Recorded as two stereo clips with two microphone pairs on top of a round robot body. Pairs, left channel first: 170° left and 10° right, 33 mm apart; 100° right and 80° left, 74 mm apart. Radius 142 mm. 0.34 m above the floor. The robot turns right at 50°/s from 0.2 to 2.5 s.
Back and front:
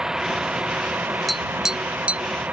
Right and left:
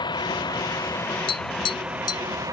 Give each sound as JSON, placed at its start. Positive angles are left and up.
{"t": 0.0, "sound": "a vehicle", "azimuth_deg": -80}
{"t": 1.3, "sound": "tapping", "azimuth_deg": -105}